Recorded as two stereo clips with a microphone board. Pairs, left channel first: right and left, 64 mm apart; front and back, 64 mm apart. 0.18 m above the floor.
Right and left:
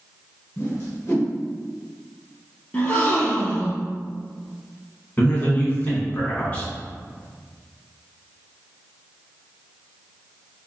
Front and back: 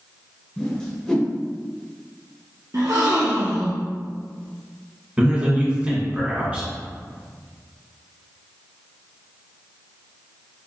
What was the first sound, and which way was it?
A whoosh, 75° right.